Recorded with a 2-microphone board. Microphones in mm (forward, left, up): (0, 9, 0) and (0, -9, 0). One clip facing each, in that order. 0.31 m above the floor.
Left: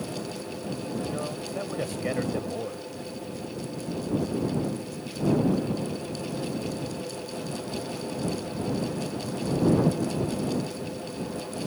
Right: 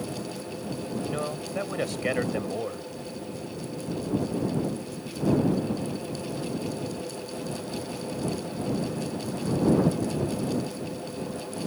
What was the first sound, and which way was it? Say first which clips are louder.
A man speaking: right 1 dB; 35° right (ahead or behind).